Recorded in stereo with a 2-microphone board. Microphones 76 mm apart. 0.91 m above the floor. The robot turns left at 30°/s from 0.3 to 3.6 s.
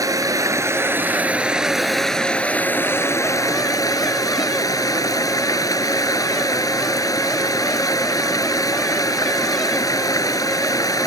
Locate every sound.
0.0 s running water: 135° right; by 11.1 s 130° left